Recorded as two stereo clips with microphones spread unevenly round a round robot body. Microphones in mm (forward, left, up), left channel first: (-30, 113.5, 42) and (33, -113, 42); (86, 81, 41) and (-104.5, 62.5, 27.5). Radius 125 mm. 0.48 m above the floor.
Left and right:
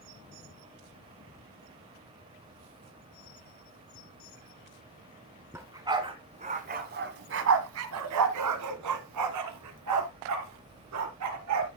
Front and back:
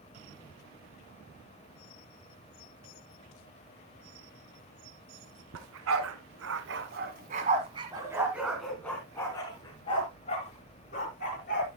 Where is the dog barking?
155° right, 1.9 m; by 11.7 s 50° right, 3 m.